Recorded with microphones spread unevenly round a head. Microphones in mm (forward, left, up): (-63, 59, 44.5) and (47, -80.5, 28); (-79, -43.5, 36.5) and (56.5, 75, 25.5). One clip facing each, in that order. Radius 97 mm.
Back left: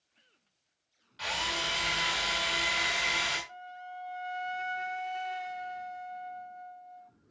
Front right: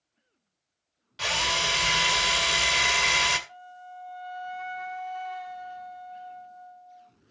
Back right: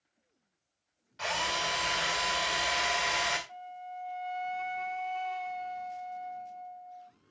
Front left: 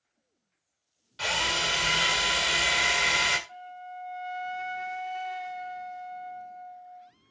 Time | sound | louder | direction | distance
1.2 | a drill | front right 5 dB, front left 2 dB | 10° right | 1.6 m
3.5 | a flute | even, front left 1 dB | 95° left | 0.5 m